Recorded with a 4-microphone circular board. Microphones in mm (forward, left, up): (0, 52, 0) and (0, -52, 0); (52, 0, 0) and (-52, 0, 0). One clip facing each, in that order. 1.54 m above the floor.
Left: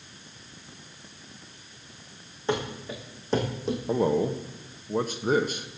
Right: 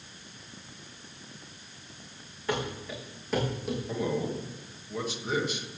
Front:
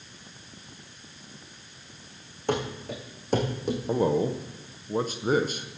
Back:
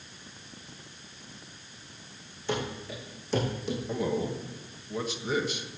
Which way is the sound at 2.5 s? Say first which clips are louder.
Left 3 dB, front 4 dB; 30° left.